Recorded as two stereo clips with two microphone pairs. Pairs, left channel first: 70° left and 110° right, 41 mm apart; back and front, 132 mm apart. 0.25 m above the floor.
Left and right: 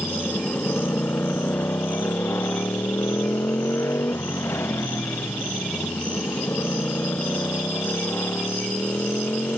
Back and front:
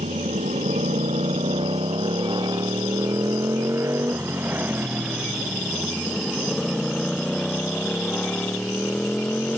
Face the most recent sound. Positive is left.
turn(degrees=100)